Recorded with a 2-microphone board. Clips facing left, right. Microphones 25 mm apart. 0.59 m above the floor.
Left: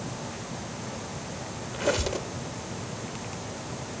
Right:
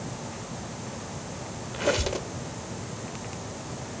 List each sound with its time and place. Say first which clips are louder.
1.7 s a squeak: right 1 dB; 10° right (ahead or behind), 0.9 m